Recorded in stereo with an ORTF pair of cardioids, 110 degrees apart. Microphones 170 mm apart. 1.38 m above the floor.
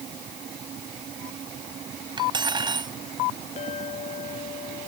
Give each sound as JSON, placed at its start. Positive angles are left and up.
{"t": 2.2, "sound": "cutlery clinking", "azimuth_deg": -25}
{"t": 3.6, "sound": "a clink", "azimuth_deg": 40}